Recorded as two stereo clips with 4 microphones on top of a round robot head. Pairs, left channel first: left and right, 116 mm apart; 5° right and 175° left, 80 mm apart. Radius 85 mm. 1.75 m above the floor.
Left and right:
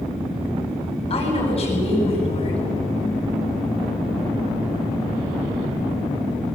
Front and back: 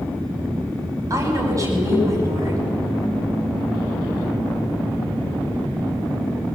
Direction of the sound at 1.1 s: 125° left.